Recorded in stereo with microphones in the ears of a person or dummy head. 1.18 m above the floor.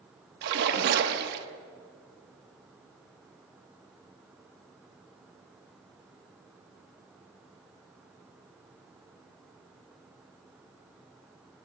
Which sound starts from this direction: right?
A splash, at 0.4 s.